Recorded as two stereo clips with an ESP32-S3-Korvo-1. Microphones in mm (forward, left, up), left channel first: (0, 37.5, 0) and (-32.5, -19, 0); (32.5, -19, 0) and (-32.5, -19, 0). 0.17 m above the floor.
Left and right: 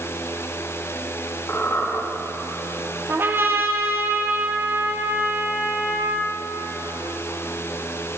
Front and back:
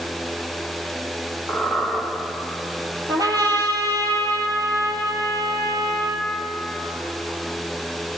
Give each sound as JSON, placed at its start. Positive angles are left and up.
{"t": 1.5, "sound": "a squeak", "azimuth_deg": 105, "distance_m": 5.0}
{"t": 3.1, "sound": "a trumpet", "azimuth_deg": -170, "distance_m": 1.7}